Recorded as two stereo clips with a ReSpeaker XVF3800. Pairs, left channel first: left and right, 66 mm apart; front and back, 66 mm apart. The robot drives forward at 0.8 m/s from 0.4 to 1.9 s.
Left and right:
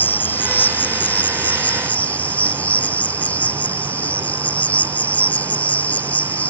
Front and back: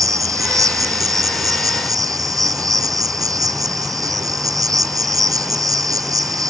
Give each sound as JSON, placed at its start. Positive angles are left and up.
{"t": 0.0, "sound": "an insect", "azimuth_deg": 150}